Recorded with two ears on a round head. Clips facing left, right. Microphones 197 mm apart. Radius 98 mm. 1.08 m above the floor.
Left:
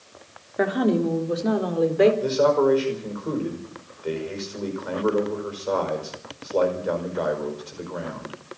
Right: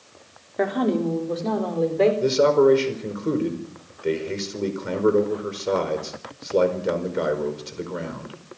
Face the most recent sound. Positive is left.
turn(degrees=-30)  # may be behind; listen again after turning